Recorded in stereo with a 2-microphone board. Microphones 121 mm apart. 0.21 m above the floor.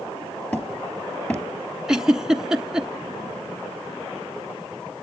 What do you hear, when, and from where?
0.5 s hammering: 15° left (ahead or behind), 2.5 m
1.9 s a giggle: 5° right (ahead or behind), 1.1 m